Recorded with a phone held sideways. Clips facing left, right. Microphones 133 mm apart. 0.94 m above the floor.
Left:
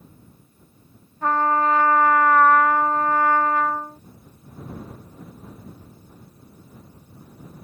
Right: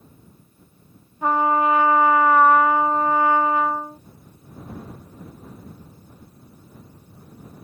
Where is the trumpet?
10° right (ahead or behind).